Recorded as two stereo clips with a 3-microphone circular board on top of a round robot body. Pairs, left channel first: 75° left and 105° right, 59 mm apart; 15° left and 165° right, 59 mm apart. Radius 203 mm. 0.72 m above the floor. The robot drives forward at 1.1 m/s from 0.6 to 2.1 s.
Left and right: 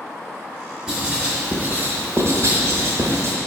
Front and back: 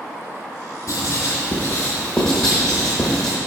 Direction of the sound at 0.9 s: 25° right.